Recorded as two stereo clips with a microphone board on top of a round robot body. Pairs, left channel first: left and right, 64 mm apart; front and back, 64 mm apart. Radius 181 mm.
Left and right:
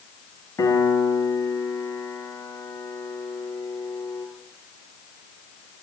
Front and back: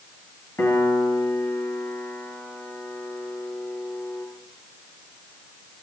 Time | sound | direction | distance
0.6 | a piano | 50° left | 6 m